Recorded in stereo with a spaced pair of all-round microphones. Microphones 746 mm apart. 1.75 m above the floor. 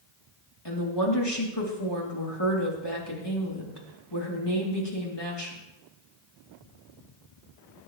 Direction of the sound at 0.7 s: 35° left (ahead or behind).